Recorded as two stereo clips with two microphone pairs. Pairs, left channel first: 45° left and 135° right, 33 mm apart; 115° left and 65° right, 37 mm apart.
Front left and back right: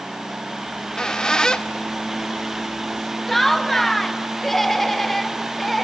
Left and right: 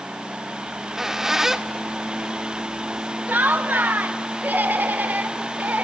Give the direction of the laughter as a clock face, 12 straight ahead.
1 o'clock.